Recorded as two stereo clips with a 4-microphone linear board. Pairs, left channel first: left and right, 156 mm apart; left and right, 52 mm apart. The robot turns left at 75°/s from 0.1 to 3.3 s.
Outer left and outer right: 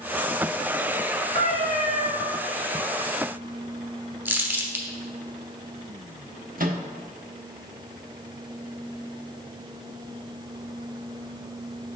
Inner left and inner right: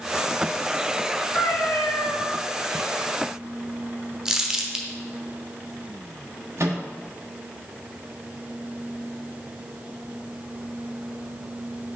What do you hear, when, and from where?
1.4 s a cat meowing: 140° left, 1.7 m; by 2.2 s 75° left, 1.7 m
4.2 s crumpling: 15° right (ahead or behind), 0.9 m
6.6 s a microwave: 60° right (ahead or behind), 1.0 m